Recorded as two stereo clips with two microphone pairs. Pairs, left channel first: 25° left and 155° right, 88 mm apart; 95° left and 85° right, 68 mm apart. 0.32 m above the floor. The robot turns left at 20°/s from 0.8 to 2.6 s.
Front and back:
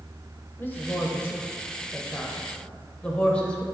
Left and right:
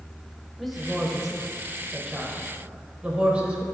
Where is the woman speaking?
10° left, 0.9 m; by 3.6 s 30° right, 0.9 m.